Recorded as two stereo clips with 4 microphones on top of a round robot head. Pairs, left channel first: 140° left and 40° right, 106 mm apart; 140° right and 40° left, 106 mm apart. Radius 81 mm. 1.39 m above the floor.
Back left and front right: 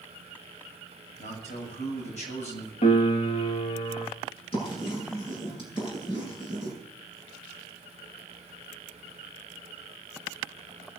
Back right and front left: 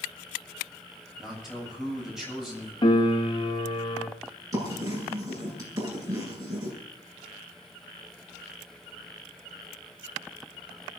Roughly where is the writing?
Left.